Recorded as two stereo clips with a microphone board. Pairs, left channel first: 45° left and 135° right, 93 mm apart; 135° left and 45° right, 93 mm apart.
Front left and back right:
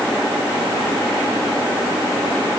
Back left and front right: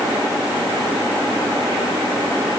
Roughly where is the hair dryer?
No hair dryer in this recording.